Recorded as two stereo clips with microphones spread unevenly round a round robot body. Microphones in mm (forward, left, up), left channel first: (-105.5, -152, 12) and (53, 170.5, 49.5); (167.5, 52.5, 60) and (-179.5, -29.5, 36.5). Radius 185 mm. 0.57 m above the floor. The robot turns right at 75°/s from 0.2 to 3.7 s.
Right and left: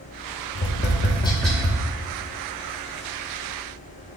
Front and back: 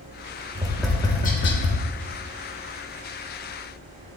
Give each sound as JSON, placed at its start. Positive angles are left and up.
{"t": 0.6, "sound": "tapping", "azimuth_deg": -100, "distance_m": 1.1}